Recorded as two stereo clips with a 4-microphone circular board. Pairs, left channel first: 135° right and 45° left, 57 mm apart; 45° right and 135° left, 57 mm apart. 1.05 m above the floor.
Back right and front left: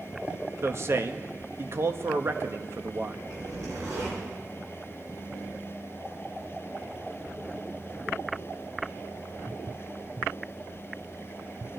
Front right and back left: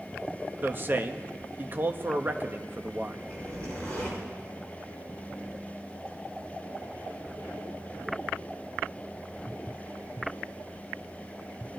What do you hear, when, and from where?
0.6 s a man speaking: 85° left, 1.0 m
3.3 s a zipper: 25° left, 9.5 m